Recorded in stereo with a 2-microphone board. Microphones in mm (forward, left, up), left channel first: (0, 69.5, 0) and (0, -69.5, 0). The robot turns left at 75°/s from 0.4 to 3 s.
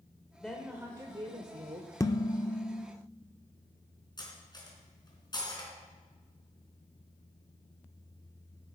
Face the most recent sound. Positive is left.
turn(degrees=30)  # may be behind; listen again after turning